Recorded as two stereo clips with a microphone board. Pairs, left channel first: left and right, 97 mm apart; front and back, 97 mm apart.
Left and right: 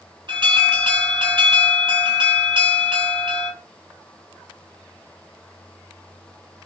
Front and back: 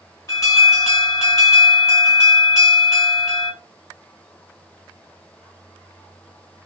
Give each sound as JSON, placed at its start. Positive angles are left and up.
{"t": 0.3, "sound": "an alarm", "azimuth_deg": -55, "distance_m": 6.0}